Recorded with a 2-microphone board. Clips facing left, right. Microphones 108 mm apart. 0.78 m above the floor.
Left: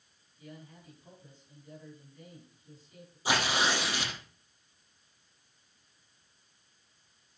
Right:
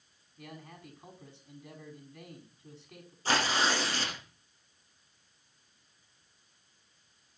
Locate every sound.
0.4 s a man speaking: 75° right (ahead or behind), 6 m
3.2 s tearing paper: 10° left (ahead or behind), 6 m